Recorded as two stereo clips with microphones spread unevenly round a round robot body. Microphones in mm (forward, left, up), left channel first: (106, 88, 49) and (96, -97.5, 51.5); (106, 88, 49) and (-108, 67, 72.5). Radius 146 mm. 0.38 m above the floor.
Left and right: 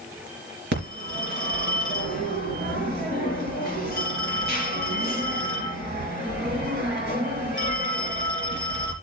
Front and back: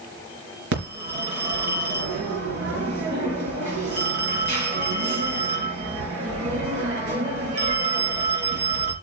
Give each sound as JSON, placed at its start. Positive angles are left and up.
{"t": 0.7, "sound": "a phone ringing", "azimuth_deg": -140, "distance_m": 3.5}